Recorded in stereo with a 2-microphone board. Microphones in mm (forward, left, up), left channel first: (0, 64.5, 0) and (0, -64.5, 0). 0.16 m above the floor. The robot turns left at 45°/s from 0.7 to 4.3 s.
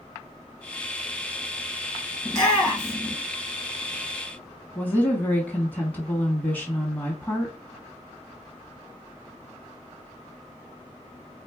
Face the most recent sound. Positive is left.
turn(degrees=10)  # may be behind; listen again after turning